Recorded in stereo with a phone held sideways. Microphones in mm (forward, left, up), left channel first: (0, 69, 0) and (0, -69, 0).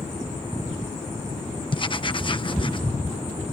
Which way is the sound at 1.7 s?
35° left (ahead or behind).